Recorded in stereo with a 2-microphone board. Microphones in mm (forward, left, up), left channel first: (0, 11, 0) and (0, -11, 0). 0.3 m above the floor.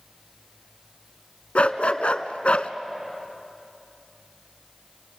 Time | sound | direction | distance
1.6 | a dog barking | 75° left (ahead or behind) | 0.7 m